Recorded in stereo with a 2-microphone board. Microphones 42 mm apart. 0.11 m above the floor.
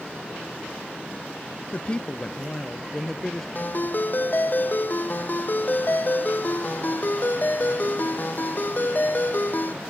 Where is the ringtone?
45° left (ahead or behind).